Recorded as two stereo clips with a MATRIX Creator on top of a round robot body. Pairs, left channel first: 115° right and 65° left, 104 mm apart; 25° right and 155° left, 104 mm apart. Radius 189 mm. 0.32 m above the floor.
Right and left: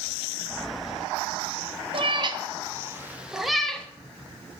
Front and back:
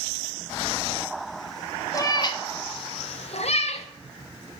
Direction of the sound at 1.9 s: 35° left.